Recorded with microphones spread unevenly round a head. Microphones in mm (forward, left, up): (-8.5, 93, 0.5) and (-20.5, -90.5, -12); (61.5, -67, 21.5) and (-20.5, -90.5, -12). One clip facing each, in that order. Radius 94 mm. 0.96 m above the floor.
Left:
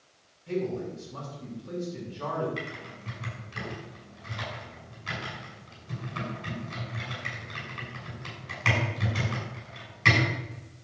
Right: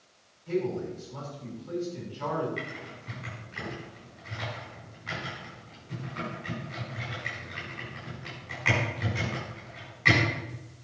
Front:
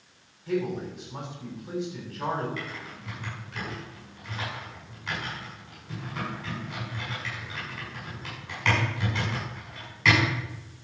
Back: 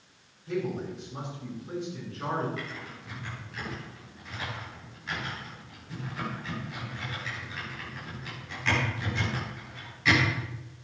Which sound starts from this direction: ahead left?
Typing on a keyboard, at 2.6 s.